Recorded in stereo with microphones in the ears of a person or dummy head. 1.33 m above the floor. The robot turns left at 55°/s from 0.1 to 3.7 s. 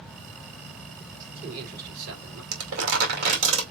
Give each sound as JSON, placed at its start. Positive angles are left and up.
{"t": 1.2, "sound": "a man speaking", "azimuth_deg": -20, "distance_m": 3.0}
{"t": 2.5, "sound": "crumpling", "side_deg": -85, "distance_m": 2.0}